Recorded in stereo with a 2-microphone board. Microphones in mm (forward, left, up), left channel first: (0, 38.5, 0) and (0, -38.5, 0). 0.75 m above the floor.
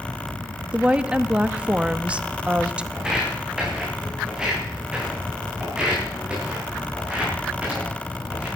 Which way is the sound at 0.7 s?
15° right (ahead or behind).